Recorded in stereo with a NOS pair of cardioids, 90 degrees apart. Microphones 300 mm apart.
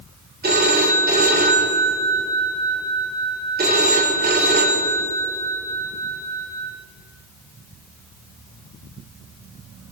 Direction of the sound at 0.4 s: 30° right.